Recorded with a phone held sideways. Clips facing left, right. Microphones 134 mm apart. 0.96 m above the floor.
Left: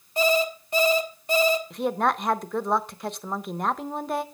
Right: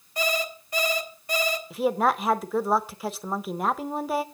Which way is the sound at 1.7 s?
5° right (ahead or behind).